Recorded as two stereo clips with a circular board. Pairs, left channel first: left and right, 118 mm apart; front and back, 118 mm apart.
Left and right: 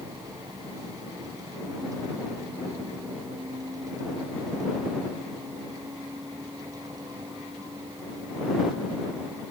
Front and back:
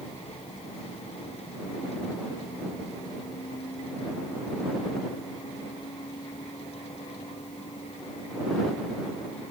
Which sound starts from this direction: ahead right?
A vehicle, at 0.0 s.